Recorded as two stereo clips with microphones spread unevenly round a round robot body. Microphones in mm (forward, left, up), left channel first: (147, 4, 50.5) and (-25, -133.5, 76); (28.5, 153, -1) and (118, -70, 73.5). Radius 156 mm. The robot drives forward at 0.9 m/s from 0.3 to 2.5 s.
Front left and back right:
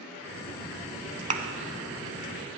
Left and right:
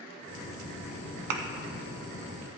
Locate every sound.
1.3 s a thud: 85° right, 0.9 m; by 1.4 s 90° right, 0.9 m